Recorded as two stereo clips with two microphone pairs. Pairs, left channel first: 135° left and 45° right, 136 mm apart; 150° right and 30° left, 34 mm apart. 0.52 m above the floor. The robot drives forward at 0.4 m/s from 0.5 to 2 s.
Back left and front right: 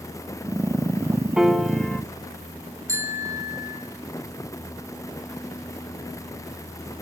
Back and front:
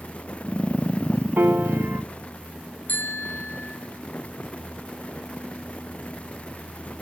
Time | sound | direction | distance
1.4 | a piano | 40° left | 1.0 m
2.9 | a bicycle bell | 115° right | 5 m